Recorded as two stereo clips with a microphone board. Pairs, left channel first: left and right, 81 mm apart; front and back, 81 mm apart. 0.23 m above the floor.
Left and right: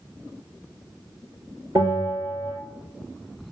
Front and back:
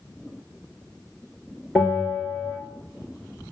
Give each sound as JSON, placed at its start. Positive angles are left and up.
{"t": 1.8, "sound": "a bell", "azimuth_deg": -100, "distance_m": 2.0}